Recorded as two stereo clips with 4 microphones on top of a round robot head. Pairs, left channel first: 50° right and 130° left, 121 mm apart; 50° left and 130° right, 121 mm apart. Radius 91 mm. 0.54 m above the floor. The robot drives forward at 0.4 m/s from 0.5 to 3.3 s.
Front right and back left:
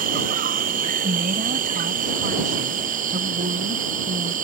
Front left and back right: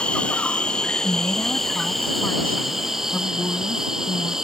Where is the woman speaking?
120° left; by 4.4 s 130° left.